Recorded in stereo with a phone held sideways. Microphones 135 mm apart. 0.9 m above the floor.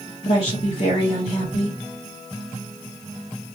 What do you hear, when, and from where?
0.2 s a woman speaking: 50° left (ahead or behind), 1.5 m